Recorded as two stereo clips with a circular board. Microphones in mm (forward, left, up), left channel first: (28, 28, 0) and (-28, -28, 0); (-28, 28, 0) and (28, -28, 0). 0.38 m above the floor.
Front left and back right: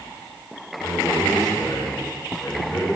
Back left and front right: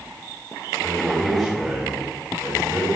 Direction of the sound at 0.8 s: 50° left.